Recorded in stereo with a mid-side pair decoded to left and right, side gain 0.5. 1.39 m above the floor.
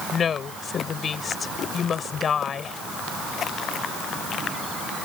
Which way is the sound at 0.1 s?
45° left.